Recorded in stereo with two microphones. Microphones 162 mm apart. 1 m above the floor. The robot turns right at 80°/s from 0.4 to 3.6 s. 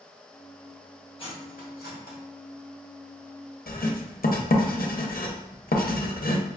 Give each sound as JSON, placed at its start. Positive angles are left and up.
{"t": 1.2, "sound": "cutlery clinking", "side_deg": 35, "distance_m": 1.0}
{"t": 3.7, "sound": "writing", "side_deg": 70, "distance_m": 0.6}